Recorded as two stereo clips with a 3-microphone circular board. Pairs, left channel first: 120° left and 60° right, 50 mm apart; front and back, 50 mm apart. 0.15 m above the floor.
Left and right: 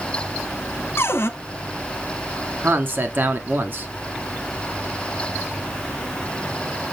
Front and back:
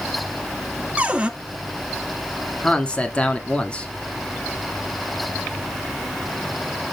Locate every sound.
1.0 s a cupboard door: 120° left, 0.8 m
2.6 s a man speaking: 55° right, 1.3 m